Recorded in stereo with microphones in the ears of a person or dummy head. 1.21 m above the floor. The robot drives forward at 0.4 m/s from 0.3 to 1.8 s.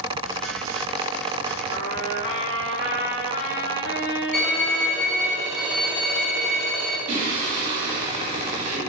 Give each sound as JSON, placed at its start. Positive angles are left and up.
{"t": 1.7, "sound": "a trumpet", "side_deg": 45, "distance_m": 1.9}
{"t": 4.3, "sound": "a violin", "side_deg": -10, "distance_m": 3.0}
{"t": 7.1, "sound": "singing", "side_deg": -35, "distance_m": 3.0}